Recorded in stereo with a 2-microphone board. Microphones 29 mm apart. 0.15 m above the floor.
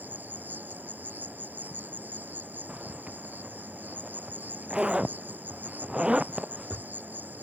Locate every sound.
0.0 s an insect: 85° right
2.7 s a zipper: 30° right (ahead or behind)